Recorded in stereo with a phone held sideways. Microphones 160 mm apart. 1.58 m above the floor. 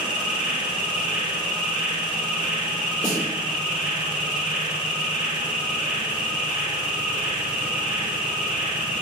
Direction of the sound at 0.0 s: 10° right (ahead or behind).